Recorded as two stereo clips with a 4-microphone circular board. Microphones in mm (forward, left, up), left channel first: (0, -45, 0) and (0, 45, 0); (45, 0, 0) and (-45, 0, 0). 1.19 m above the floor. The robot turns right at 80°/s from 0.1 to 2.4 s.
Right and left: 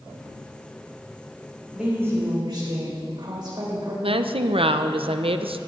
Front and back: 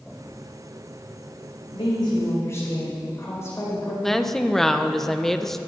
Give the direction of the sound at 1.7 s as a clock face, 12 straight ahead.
12 o'clock.